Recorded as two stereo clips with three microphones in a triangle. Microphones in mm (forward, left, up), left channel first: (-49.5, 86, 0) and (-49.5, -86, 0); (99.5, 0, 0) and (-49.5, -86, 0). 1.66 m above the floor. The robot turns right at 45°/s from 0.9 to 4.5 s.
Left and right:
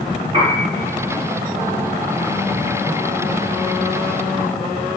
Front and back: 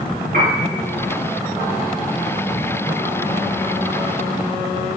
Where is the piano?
145° right, 4 m.